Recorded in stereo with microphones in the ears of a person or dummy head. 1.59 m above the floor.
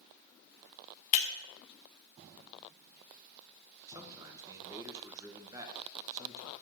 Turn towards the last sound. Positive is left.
turn(degrees=-20)  # may be behind; listen again after turning